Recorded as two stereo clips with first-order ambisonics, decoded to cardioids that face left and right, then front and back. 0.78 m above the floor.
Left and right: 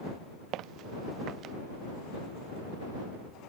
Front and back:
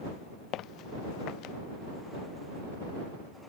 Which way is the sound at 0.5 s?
50° right.